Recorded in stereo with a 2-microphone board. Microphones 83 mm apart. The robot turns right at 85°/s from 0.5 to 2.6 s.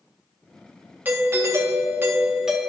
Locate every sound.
1.1 s a doorbell: 135° right, 1.6 m; by 2.7 s 5° right, 1.6 m